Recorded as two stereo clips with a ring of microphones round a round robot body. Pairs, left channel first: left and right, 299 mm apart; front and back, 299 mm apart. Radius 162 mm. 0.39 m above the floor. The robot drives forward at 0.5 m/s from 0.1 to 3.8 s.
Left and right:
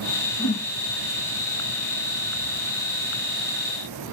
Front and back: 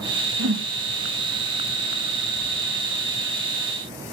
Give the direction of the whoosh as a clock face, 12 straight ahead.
8 o'clock.